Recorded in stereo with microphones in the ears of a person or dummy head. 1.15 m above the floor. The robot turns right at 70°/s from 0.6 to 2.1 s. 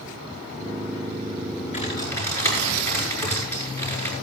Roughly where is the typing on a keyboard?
Left.